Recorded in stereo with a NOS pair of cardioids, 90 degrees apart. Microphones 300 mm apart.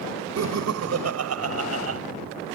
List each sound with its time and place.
0.4 s laughter: 60° right; by 2.0 s 55° right